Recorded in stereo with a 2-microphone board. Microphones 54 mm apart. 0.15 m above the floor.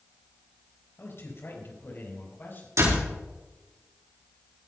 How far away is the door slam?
About 6 m.